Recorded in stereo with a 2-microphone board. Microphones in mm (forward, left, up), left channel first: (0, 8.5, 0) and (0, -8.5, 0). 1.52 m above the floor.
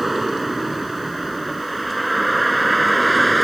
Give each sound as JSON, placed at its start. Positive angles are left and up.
{"t": 0.0, "sound": "a vehicle", "side_deg": -5}